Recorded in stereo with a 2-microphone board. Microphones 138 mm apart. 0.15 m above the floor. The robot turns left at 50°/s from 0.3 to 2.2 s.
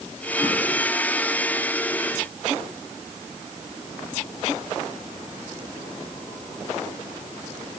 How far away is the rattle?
I don't hear a rattle.